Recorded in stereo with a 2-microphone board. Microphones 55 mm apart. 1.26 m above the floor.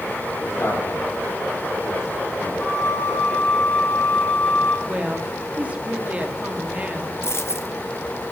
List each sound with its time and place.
0.4 s a man speaking: 50° left (ahead or behind), 5 m
2.6 s a flute: 25° left (ahead or behind), 4 m
4.9 s a woman speaking: 25° right (ahead or behind), 2.5 m
7.2 s a dropped coin: 50° left (ahead or behind), 1.1 m